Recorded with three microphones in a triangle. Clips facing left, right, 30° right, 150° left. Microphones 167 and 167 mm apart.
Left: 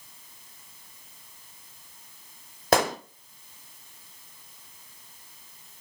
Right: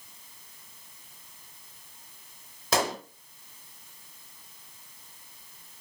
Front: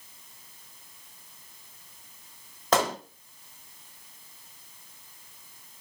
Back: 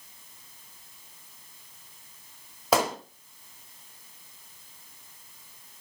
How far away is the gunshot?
About 0.8 m.